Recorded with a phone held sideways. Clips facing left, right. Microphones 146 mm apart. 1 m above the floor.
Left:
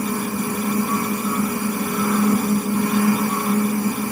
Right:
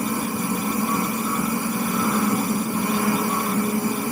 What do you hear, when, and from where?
0.0 s a fan: 25° right (ahead or behind), 0.8 m